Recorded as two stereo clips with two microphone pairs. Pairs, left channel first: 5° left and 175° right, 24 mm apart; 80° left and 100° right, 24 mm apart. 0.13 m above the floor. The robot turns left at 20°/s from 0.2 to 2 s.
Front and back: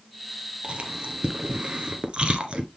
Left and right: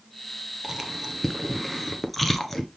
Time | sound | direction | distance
0.6 | chewing | 175° right | 1.3 m